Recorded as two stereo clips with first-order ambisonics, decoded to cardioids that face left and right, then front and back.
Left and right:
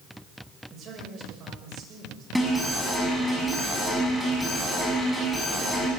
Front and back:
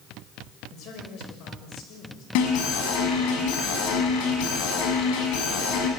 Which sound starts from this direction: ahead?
An alarm, at 2.4 s.